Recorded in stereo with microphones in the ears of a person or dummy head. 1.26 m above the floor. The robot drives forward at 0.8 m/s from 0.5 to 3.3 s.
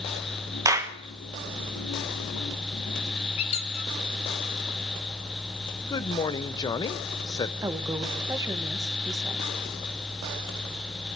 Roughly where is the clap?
Centre.